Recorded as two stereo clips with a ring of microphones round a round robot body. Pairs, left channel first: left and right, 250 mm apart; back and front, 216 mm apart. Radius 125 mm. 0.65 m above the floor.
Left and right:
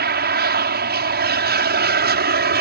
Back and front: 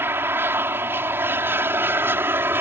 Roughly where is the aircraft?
Right.